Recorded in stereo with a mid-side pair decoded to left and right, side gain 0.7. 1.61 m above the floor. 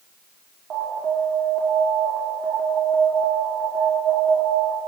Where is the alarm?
40° right, 6 m.